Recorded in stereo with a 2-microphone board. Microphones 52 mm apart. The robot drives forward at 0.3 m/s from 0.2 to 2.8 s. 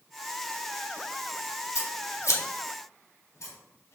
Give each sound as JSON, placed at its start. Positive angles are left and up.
{"t": 1.8, "sound": "scissors", "side_deg": 70, "distance_m": 0.7}